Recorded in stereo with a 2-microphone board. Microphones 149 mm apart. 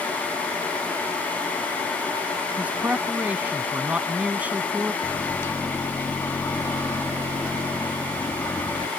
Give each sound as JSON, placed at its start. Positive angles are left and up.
{"t": 2.6, "sound": "a man speaking", "side_deg": -10}
{"t": 5.0, "sound": "a microwave", "side_deg": 15}